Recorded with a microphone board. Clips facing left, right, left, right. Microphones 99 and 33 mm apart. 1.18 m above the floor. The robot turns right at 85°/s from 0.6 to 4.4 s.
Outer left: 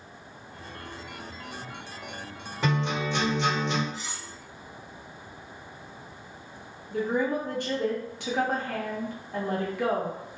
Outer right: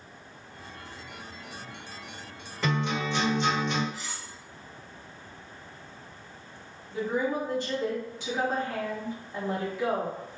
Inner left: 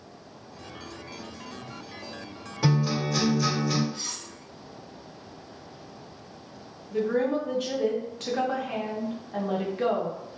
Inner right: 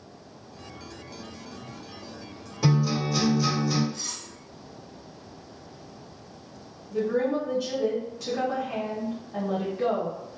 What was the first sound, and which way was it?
A guitar, 15° left.